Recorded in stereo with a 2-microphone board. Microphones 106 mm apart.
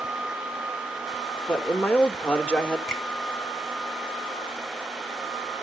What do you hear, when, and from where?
1.5 s a man speaking: 10° left (ahead or behind), 1.1 m
2.9 s a finger snap: centre (ahead or behind), 7.5 m